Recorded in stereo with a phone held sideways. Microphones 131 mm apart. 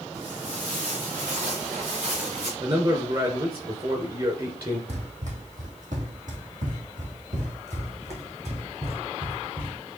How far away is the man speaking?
About 3 m.